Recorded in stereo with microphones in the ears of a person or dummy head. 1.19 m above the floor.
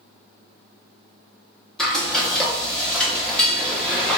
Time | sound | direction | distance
1.8 | frying | 5° left (ahead or behind) | 0.7 m